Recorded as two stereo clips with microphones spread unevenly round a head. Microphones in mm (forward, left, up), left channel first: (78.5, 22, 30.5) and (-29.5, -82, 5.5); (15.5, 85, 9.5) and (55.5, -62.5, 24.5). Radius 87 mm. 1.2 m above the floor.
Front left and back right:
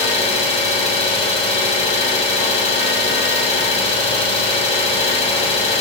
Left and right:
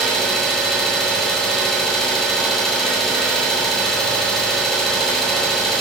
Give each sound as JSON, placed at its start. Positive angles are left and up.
{"t": 0.0, "sound": "an engine running", "azimuth_deg": 15, "distance_m": 1.3}